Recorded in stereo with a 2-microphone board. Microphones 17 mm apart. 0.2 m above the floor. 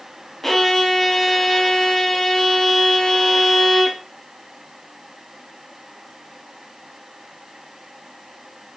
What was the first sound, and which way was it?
A violin, 15° left (ahead or behind).